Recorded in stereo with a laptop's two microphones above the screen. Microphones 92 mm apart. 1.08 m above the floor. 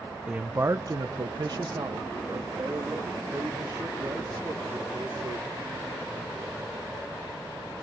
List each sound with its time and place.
0.3 s a man speaking: 10° right (ahead or behind), 0.7 m; by 5.7 s 50° right (ahead or behind), 4.5 m